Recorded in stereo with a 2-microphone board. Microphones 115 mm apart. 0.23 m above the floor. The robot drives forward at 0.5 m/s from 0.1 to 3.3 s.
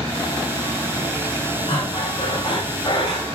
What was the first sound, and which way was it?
Breathing, 45° left (ahead or behind).